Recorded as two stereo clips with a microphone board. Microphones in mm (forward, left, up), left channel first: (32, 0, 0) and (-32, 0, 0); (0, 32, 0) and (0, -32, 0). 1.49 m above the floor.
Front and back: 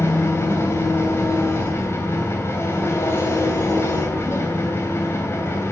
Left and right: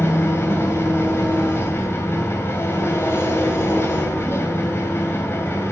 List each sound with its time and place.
0.0 s an engine running: 45° left, 2.5 m